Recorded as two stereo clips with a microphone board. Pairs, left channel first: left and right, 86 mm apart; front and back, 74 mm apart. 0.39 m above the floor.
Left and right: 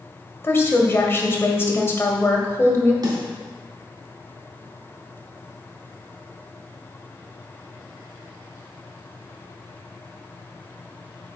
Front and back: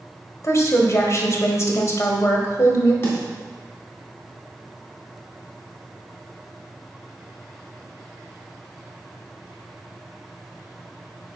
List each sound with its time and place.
0.4 s a woman speaking: 35° left, 1.4 m
3.0 s a snare drum: 55° right, 3 m